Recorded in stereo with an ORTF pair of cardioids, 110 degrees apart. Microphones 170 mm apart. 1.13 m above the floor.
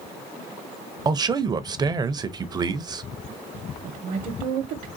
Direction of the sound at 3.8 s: 55° right.